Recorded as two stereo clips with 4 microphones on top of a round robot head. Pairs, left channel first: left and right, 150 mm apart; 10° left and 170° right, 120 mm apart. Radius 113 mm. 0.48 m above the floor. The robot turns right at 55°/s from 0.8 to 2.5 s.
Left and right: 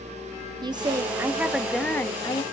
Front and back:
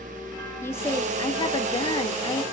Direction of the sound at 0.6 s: 45° right.